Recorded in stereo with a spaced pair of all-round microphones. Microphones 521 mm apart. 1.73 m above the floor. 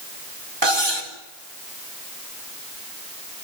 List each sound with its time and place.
0.6 s cutlery clinking: 50° right (ahead or behind), 4 m